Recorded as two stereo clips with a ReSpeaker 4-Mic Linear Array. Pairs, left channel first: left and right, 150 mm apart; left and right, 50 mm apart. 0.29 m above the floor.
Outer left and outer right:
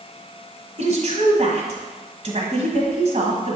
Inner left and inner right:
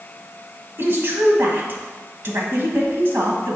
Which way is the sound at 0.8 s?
50° right (ahead or behind).